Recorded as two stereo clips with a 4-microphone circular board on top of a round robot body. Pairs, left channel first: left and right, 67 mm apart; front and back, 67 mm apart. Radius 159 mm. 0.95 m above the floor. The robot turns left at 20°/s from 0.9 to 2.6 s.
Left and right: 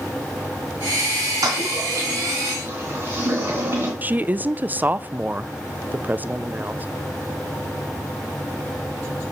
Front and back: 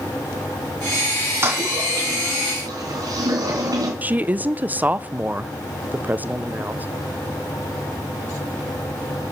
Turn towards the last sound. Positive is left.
turn(degrees=-135)